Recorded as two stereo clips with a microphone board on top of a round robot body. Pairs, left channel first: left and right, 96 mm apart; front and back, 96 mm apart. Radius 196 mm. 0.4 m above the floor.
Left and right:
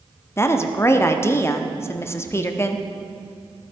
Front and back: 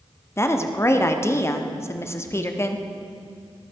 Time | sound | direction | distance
0.4 | a woman speaking | 45° left | 1.3 m